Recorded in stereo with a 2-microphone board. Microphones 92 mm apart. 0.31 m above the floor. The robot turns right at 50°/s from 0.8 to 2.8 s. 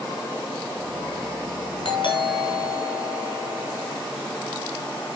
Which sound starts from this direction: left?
A doorbell, at 1.9 s.